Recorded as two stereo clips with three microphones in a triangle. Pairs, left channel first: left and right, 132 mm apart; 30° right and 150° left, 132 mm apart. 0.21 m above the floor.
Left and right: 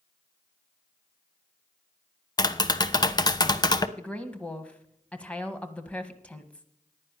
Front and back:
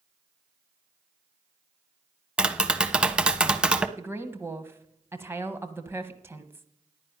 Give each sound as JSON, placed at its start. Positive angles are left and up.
{"t": 2.4, "sound": "tapping", "azimuth_deg": 75, "distance_m": 0.6}
{"t": 4.0, "sound": "a woman speaking", "azimuth_deg": 150, "distance_m": 1.1}